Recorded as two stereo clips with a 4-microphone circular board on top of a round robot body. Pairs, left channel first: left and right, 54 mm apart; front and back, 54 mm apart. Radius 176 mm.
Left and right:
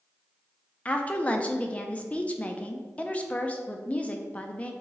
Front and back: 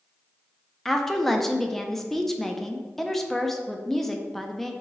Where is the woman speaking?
80° left, 0.7 m.